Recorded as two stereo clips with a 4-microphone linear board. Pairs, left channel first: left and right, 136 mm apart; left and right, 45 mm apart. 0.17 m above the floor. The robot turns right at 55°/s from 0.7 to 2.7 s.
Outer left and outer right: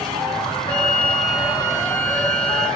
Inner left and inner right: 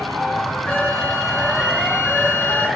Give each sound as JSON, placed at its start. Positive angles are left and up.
{"t": 0.7, "sound": "a flute", "azimuth_deg": 150, "distance_m": 3.5}